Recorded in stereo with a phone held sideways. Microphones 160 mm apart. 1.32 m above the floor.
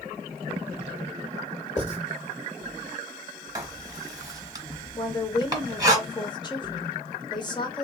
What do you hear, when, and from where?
1.8 s writing: 45° left (ahead or behind), 1.6 m
3.5 s writing: 25° right (ahead or behind), 1.1 m
5.0 s a woman speaking: 30° left (ahead or behind), 0.8 m